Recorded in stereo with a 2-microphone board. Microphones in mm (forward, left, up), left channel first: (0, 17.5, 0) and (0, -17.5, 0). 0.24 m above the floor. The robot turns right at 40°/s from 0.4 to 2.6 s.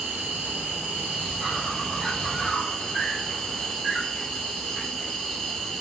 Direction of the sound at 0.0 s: 75° right.